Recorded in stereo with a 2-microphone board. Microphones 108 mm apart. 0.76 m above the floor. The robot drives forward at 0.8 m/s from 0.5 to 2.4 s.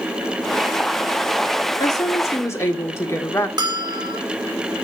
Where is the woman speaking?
40° left (ahead or behind), 1.1 m; by 3.5 s 30° left (ahead or behind), 1.5 m.